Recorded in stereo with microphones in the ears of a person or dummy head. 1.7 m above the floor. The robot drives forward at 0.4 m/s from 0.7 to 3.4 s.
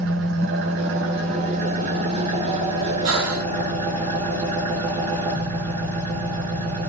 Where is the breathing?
90° right, 0.9 m; by 3.5 s 80° right, 0.9 m.